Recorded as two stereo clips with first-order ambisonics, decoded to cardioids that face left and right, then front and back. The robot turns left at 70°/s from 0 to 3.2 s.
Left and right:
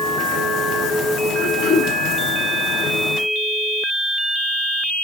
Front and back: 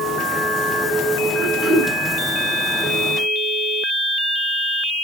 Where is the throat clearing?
145° left, 8.5 m; by 1.9 s 110° left, 8.5 m.